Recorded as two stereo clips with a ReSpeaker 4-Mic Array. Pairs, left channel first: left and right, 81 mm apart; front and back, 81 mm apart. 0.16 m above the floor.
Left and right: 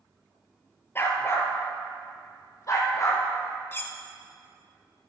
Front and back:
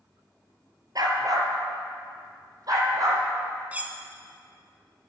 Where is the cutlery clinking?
125° left, 0.7 m.